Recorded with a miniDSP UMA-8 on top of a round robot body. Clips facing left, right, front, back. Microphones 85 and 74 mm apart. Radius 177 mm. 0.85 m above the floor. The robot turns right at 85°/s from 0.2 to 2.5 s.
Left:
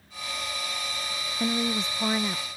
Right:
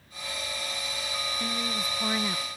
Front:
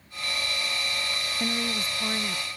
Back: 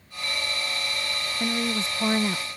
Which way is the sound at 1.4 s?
100° left.